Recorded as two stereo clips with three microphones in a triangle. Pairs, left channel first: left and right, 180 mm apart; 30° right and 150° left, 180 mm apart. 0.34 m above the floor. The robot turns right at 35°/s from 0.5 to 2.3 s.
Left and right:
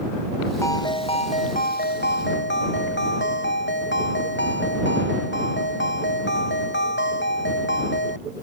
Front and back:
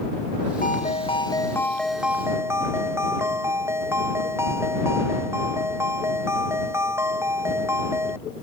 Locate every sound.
0.6 s a ringtone: 15° left; by 8.2 s 75° left